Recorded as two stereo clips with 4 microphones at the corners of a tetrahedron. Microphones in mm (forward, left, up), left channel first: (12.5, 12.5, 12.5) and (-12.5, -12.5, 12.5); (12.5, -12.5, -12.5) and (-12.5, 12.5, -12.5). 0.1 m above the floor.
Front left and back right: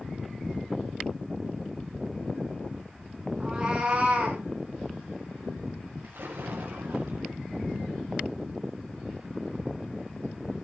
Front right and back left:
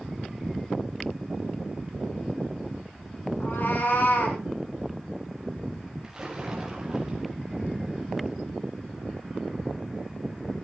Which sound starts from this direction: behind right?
A splash, at 6.0 s.